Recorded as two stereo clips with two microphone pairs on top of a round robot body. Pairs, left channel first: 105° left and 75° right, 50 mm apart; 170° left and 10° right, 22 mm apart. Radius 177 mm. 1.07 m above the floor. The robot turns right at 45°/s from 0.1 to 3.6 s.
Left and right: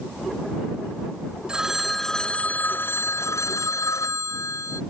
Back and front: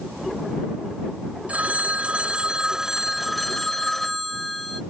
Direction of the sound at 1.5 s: Straight ahead.